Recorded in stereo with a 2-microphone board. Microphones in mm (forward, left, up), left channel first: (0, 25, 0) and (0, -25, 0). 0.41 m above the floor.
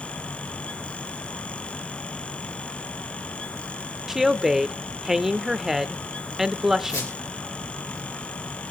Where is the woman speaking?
5° right (ahead or behind), 0.8 m.